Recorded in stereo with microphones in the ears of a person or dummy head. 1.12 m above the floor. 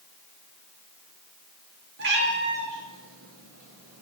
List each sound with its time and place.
2.0 s a cat meowing: 60° right (ahead or behind), 3.5 m; by 4.0 s 40° right (ahead or behind), 4 m